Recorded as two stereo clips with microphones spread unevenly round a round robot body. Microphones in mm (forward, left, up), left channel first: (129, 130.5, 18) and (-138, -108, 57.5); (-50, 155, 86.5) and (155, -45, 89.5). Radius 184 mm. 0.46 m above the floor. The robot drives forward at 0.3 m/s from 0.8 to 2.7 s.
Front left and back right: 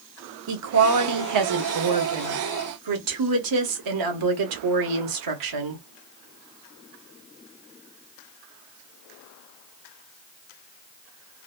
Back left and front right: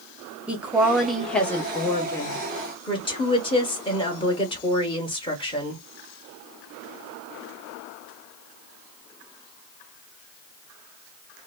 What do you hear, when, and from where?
0.5 s a woman speaking: 130° right, 0.9 m; by 5.8 s 155° right, 1.2 m